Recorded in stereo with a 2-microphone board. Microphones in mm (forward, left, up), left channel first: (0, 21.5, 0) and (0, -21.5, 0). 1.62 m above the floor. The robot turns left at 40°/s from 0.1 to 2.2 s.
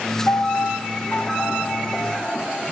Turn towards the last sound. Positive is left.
turn(degrees=15)